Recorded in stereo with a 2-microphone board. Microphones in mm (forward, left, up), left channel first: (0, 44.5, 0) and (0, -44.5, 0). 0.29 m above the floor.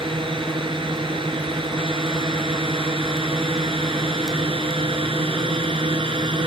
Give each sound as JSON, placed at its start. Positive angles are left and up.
{"t": 0.0, "sound": "a drone", "side_deg": -75}